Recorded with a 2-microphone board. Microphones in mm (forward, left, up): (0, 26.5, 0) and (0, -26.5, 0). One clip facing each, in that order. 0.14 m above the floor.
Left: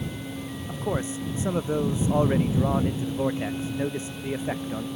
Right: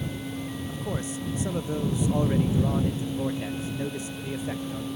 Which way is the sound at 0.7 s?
30° left (ahead or behind).